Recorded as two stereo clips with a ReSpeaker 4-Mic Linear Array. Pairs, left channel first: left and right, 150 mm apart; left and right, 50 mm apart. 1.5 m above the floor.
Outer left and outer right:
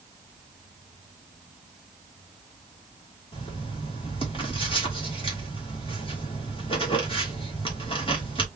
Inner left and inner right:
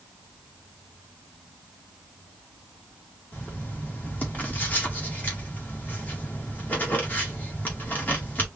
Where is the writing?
35° left (ahead or behind), 2.5 m.